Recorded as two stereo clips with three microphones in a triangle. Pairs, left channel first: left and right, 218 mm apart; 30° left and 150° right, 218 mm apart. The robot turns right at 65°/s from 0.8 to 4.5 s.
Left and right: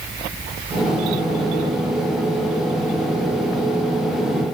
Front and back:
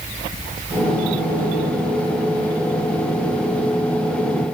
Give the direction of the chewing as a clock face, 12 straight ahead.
No chewing in this recording.